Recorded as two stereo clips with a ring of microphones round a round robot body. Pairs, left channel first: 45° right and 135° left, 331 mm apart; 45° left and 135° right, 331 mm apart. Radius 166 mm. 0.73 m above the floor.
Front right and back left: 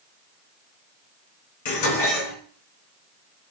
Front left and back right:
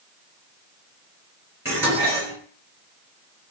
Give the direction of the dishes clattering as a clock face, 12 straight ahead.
2 o'clock.